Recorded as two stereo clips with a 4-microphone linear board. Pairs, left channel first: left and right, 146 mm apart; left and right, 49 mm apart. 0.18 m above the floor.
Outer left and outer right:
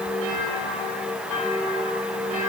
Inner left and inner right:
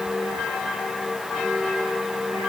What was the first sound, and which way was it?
Only background noise.